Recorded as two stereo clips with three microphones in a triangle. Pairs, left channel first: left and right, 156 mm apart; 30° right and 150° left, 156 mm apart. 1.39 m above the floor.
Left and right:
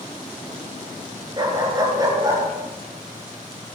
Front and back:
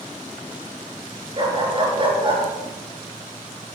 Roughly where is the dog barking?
Behind right.